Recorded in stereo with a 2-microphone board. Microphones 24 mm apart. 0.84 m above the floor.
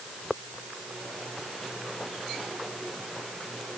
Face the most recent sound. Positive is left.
No sound to turn to.